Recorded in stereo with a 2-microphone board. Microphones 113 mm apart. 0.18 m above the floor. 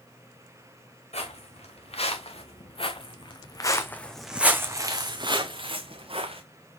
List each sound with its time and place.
1.1 s footsteps: 75° left (ahead or behind), 1.9 m; by 6.4 s 65° right (ahead or behind), 1.5 m